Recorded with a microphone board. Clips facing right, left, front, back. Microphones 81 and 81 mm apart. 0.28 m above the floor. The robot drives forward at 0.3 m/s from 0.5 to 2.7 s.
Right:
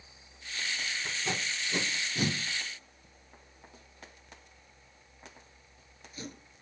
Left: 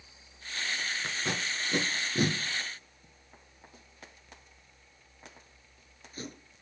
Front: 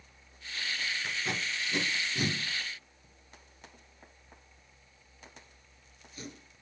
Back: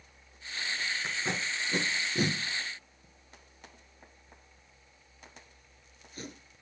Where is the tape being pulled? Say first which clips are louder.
Even, back 1 dB; 120° left, 1.0 m; by 6.3 s 140° left, 1.3 m.